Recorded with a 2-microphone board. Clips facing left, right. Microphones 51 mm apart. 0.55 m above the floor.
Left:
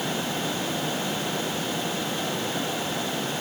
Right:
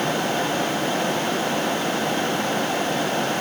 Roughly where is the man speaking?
I don't hear a man speaking.